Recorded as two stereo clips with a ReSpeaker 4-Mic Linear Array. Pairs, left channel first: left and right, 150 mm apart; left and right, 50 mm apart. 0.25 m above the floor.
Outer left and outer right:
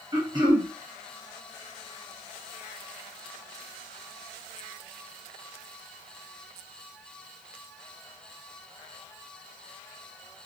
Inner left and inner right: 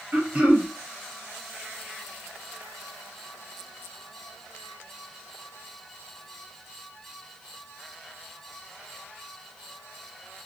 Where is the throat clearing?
30° right (ahead or behind), 1.5 m.